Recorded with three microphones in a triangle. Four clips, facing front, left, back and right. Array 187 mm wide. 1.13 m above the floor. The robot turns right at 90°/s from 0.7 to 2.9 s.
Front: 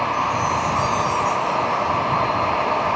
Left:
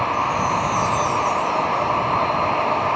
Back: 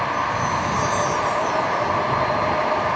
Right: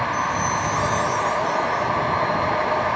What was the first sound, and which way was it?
A chime, 155° left.